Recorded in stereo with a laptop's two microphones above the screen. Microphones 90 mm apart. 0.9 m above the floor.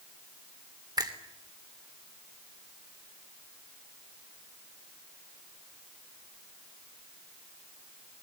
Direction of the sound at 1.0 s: 45° right (ahead or behind).